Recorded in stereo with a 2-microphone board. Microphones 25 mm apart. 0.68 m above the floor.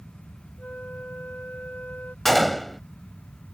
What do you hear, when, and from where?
0.6 s a flute: 65° left (ahead or behind)
2.2 s a gunshot: 15° left (ahead or behind)